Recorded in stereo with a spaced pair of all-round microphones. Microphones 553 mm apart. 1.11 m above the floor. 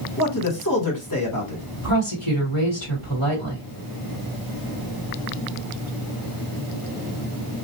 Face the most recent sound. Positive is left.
turn(degrees=50)  # may be behind; listen again after turning